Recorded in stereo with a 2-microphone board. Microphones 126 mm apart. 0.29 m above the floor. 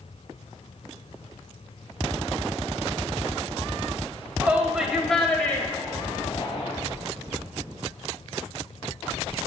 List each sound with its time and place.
4.4 s a shout: 15° right (ahead or behind), 1.1 m; by 6.7 s 40° left (ahead or behind), 1.2 m